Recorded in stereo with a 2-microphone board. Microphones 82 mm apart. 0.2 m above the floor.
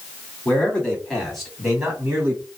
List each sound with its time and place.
0.5 s a man speaking: 20° left (ahead or behind), 1.8 m; by 2.4 s 25° right (ahead or behind), 1.8 m